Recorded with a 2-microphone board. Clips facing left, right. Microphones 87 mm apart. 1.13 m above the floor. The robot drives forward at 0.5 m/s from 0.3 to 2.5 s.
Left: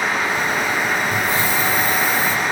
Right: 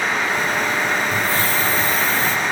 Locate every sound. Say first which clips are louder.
1.1 s a hiss: left 1 dB; 20° left (ahead or behind), 1.2 m; by 2.4 s 15° left (ahead or behind), 1.8 m